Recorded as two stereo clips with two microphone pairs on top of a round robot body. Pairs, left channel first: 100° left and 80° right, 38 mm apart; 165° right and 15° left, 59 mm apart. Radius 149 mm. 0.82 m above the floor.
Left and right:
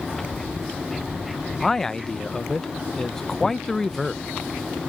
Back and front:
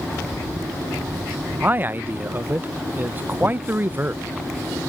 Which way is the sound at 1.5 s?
30° left.